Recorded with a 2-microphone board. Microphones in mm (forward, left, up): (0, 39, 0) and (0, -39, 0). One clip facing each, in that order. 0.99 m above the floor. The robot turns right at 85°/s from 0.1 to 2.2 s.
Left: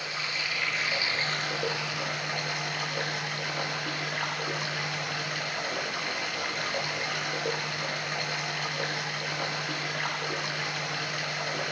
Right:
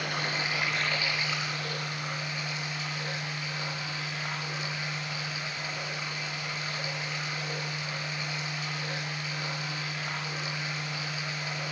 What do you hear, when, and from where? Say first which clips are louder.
0.0 s running water: right 3 dB; 60° right, 7 m; by 11.7 s 120° left, 7 m